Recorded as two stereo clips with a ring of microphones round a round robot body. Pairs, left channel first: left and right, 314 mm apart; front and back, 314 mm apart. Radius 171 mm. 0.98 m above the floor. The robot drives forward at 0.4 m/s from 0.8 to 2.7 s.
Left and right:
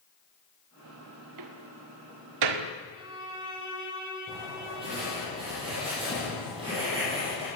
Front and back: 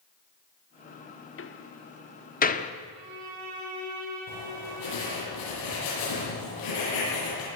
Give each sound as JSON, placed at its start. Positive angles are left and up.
{"t": 1.4, "sound": "a door slam", "azimuth_deg": -50, "distance_m": 1.6}
{"t": 3.0, "sound": "a violin", "azimuth_deg": -165, "distance_m": 8.0}
{"t": 4.3, "sound": "writing", "azimuth_deg": -15, "distance_m": 9.0}